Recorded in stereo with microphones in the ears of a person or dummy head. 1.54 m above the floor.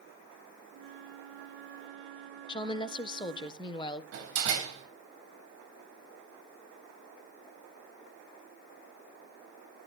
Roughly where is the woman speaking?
Left.